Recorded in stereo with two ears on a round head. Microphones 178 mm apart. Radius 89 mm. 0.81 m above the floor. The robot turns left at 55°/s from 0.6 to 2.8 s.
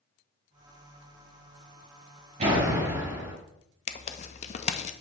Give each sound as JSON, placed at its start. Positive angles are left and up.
{"t": 2.4, "sound": "a door slam", "side_deg": -40, "distance_m": 4.0}
{"t": 3.9, "sound": "tearing paper", "side_deg": 35, "distance_m": 0.5}